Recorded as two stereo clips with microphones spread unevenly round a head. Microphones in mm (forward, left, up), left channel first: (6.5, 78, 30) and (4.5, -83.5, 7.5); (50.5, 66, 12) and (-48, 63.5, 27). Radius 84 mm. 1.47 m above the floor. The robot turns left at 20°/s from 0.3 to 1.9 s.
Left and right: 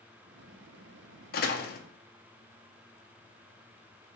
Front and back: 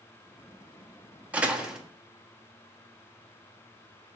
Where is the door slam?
110° left, 0.6 m; by 1.8 s 100° left, 0.6 m.